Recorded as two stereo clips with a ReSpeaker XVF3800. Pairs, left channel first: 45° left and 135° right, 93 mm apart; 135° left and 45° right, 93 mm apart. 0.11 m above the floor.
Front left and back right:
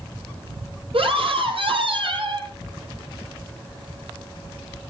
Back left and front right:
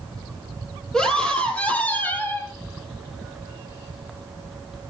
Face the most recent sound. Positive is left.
turn(degrees=-160)